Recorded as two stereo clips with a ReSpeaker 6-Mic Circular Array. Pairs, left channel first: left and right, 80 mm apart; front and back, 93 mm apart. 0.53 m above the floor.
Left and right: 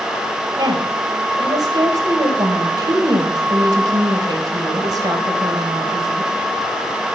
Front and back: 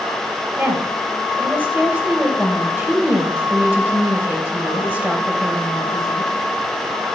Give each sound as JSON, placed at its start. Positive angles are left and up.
{"t": 0.6, "sound": "a woman speaking", "azimuth_deg": -110, "distance_m": 2.5}